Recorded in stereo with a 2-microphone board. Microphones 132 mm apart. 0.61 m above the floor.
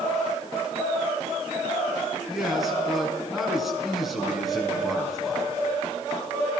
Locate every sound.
2.3 s a man speaking: centre (ahead or behind), 5.5 m